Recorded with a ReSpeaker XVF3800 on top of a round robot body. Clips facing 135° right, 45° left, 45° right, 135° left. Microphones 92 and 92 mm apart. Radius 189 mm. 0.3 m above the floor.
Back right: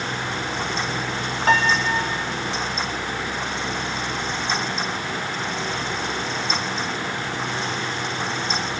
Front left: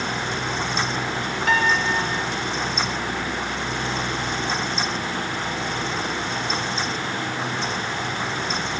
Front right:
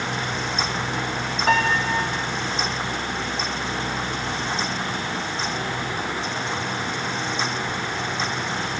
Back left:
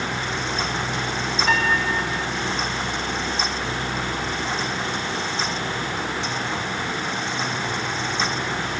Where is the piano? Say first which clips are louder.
Back right 2 dB, front right 2 dB; 85° right, 1.9 m.